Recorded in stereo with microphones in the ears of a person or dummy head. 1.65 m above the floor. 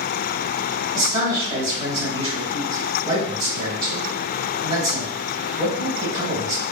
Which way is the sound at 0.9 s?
30° right (ahead or behind).